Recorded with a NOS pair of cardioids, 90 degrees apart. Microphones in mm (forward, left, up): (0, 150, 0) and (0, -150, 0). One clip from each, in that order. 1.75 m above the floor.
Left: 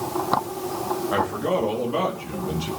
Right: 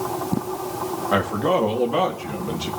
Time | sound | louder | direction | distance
1.1 | a man speaking | right 4 dB | 30° right | 3.5 m